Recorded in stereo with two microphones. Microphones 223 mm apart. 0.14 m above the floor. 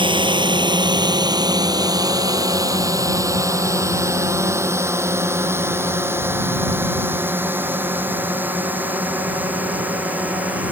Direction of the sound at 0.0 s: 20° right (ahead or behind).